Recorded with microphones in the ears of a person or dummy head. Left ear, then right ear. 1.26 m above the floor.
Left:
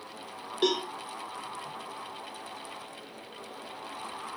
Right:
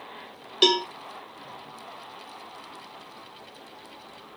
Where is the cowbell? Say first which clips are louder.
Right 7 dB; 35° right (ahead or behind), 0.9 m.